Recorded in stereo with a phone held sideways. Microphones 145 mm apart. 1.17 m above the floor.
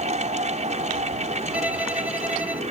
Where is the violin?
10° right (ahead or behind).